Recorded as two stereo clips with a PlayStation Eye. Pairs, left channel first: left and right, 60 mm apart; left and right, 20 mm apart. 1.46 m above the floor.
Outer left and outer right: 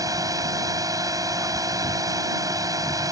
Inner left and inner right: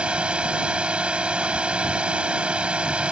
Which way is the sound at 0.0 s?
80° right.